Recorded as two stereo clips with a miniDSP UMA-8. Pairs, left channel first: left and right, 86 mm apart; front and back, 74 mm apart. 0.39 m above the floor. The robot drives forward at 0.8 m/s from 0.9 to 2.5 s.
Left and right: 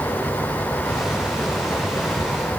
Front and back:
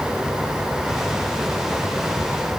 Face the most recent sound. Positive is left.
No sound to turn to.